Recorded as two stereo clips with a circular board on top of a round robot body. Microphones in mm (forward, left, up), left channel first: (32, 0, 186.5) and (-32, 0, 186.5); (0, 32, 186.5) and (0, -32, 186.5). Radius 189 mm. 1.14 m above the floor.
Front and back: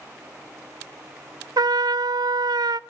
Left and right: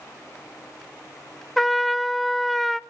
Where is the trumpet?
Straight behind, 0.6 m.